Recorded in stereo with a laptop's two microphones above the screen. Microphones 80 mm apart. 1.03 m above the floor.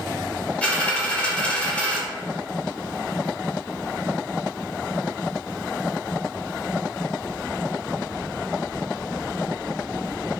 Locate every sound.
0.6 s a dropped coin: 15° left (ahead or behind), 0.8 m